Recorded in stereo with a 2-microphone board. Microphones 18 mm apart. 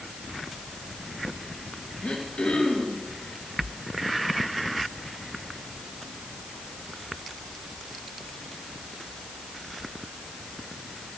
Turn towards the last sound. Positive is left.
turn(degrees=60)  # may be behind; listen again after turning